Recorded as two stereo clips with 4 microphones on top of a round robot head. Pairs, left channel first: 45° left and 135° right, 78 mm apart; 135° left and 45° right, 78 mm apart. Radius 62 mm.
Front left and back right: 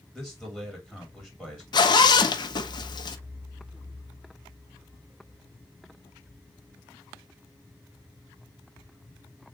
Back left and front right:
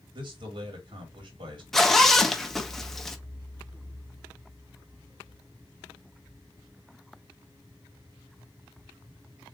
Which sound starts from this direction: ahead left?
A zipper, at 1.7 s.